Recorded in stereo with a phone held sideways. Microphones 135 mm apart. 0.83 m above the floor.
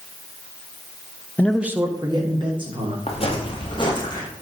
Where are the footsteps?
50° left (ahead or behind), 1.4 m; by 4.3 s 30° left (ahead or behind), 1.5 m.